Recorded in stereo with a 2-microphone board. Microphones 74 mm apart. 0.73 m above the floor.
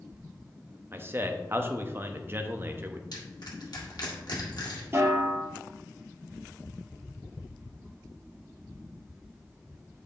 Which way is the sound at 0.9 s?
30° right (ahead or behind).